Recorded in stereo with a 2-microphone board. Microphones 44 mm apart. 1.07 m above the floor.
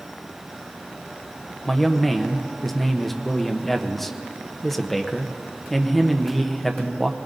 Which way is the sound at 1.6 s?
5° left (ahead or behind).